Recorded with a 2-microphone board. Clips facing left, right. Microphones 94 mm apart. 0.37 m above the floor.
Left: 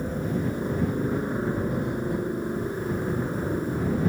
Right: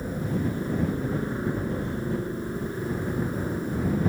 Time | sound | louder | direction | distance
0.0 | a helicopter | left 1 dB | 20° left (ahead or behind) | ?